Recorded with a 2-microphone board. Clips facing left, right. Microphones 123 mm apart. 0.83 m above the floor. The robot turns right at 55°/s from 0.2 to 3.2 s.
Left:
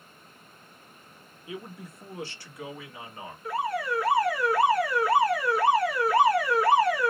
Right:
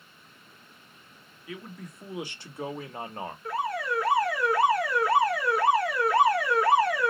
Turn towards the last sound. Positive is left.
turn(degrees=5)  # may be behind; listen again after turning